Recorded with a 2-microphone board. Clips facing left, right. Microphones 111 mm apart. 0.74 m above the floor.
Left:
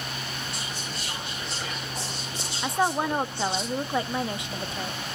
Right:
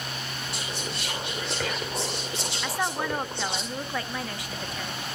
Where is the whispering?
80° right, 2 m.